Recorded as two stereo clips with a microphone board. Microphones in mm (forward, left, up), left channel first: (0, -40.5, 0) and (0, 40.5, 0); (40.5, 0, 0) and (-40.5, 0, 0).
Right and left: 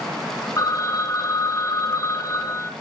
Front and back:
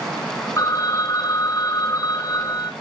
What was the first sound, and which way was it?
A phone ringing, 50° right.